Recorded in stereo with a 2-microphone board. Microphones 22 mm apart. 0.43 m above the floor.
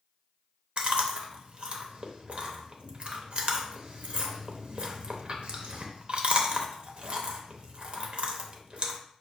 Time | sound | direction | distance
0.8 | chewing | 55° right (ahead or behind) | 0.6 m